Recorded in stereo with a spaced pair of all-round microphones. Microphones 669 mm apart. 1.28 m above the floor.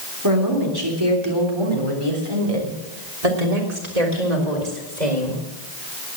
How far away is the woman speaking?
About 3.5 m.